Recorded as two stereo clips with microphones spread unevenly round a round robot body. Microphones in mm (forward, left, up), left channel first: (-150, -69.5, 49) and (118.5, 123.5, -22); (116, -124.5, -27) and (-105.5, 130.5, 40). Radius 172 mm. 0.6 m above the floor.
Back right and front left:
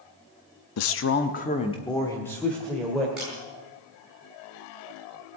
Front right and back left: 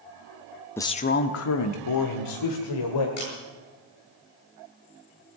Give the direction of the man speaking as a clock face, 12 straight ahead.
4 o'clock.